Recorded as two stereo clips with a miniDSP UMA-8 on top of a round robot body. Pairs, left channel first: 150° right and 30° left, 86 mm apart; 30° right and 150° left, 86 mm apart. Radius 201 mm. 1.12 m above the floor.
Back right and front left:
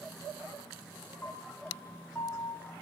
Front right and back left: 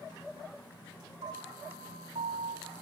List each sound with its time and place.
1.2 s a piano: 140° left, 1.4 m